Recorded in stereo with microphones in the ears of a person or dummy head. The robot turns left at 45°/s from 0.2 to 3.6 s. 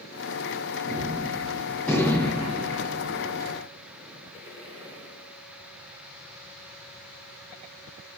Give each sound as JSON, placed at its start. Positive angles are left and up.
{"t": 0.9, "sound": "a gunshot", "azimuth_deg": -140, "distance_m": 9.5}